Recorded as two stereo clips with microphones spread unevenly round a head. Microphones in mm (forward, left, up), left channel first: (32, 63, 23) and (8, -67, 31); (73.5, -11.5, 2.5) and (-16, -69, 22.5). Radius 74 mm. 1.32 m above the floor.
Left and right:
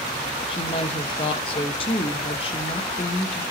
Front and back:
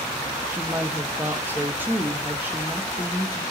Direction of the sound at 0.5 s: 135° left.